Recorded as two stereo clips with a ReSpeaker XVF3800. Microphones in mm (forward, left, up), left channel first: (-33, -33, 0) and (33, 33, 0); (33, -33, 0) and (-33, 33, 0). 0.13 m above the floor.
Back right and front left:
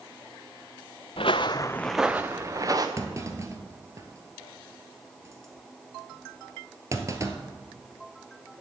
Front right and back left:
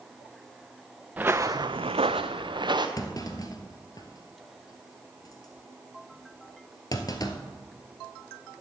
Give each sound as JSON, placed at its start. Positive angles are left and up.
{"t": 1.2, "sound": "footsteps", "azimuth_deg": -150, "distance_m": 0.9}
{"t": 3.0, "sound": "a clunk", "azimuth_deg": -5, "distance_m": 1.1}